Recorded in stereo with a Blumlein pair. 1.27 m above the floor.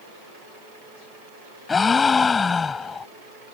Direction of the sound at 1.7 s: 15° left.